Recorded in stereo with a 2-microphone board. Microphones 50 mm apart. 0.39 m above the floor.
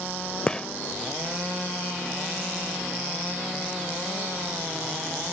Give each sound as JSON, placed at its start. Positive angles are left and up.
{"t": 0.5, "sound": "a gunshot", "side_deg": 15}